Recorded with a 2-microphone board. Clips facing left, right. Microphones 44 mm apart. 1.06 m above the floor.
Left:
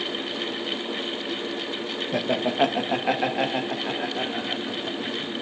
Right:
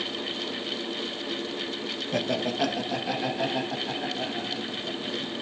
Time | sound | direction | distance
2.1 | laughter | 10° left (ahead or behind) | 0.8 m